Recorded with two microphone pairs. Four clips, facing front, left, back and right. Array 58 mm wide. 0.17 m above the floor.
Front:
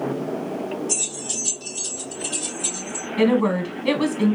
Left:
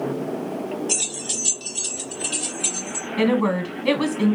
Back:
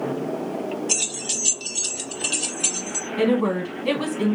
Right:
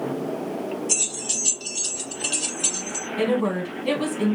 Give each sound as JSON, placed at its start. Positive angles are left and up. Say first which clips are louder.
{"t": 0.9, "sound": "keys jangling", "louder": "left 1 dB, back 1 dB", "azimuth_deg": 160, "distance_m": 1.6}
{"t": 3.2, "sound": "a woman speaking", "louder": "left 3 dB, front 2 dB", "azimuth_deg": 60, "distance_m": 1.2}